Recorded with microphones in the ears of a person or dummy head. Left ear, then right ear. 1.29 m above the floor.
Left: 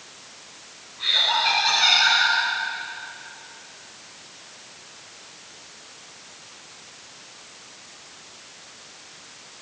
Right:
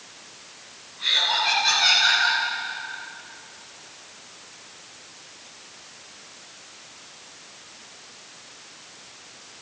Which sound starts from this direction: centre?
Laughter, at 1.0 s.